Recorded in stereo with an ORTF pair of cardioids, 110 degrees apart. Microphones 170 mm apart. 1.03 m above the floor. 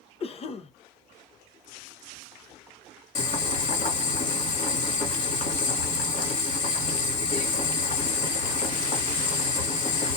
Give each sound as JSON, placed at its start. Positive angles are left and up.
{"t": 0.2, "sound": "a cough", "azimuth_deg": 40, "distance_m": 0.7}
{"t": 3.1, "sound": "boiling", "azimuth_deg": 45, "distance_m": 1.8}